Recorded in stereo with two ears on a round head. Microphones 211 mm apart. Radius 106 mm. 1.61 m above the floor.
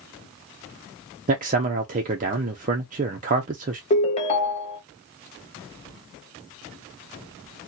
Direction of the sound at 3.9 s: 25° left (ahead or behind).